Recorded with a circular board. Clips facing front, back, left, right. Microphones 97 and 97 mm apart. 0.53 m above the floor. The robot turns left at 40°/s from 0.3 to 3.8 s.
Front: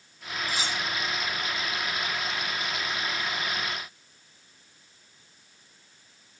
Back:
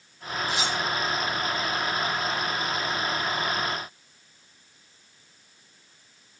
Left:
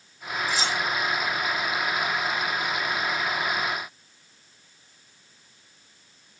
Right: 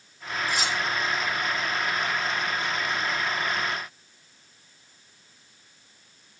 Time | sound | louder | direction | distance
0.5 | cutlery clinking | back 4 dB, left 1 dB | 55° right | 9.5 m